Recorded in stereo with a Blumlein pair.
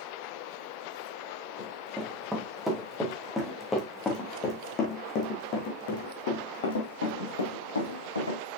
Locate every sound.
1.6 s running footsteps: 5° right, 4 m; by 8.4 s 75° left, 4 m